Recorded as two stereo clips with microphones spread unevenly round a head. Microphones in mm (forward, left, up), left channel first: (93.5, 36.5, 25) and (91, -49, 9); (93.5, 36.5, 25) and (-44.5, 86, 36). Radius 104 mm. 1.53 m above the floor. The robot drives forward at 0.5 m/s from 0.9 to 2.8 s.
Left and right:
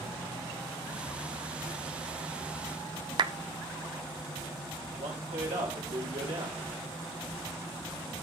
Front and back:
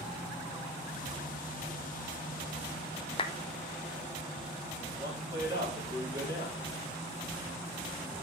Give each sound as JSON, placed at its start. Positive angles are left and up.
{"t": 3.2, "sound": "a clap", "azimuth_deg": -80, "distance_m": 0.5}
{"t": 5.0, "sound": "a man speaking", "azimuth_deg": -130, "distance_m": 4.0}